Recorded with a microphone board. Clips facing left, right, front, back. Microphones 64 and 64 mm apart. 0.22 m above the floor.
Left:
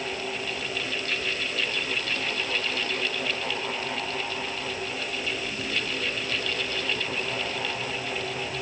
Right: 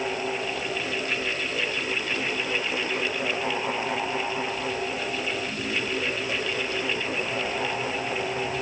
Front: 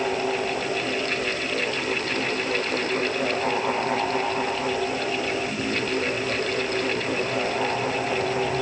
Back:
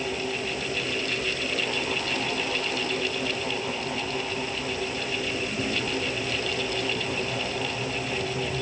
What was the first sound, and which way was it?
Only background noise.